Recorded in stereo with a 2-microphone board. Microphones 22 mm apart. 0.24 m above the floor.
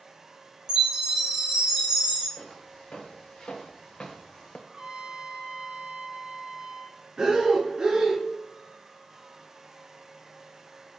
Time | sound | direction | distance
0.7 | a chime | 30° right (ahead or behind) | 1.8 m
2.4 | footsteps | 60° left (ahead or behind) | 1.8 m
4.7 | a trumpet | 50° right (ahead or behind) | 0.9 m
7.2 | breathing | 30° right (ahead or behind) | 2 m